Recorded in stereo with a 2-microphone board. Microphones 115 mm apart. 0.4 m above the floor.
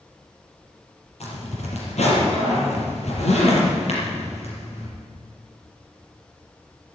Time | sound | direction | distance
1.2 | a zipper | 70° left (ahead or behind) | 5.5 m